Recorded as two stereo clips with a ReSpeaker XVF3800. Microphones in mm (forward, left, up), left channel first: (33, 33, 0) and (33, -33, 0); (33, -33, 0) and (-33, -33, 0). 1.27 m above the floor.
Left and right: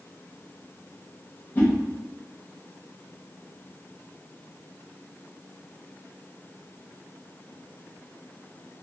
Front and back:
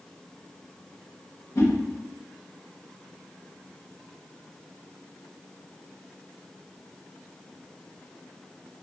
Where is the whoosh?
30° left, 0.8 m.